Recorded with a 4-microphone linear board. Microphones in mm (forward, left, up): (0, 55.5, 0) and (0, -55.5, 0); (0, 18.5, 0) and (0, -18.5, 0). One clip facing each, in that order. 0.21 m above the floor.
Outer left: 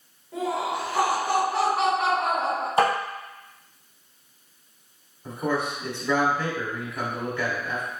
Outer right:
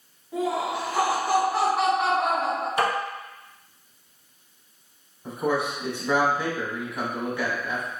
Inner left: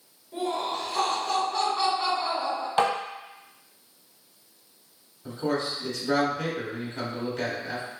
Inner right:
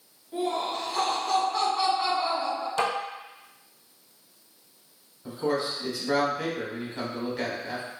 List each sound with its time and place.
0.3 s laughter: centre (ahead or behind), 1.8 m
2.8 s tapping: 30° left (ahead or behind), 1.1 m
5.2 s a man speaking: 10° right (ahead or behind), 1.0 m